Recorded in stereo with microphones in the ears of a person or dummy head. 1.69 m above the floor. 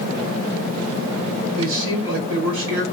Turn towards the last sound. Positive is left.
turn(degrees=-75)  # may be behind; listen again after turning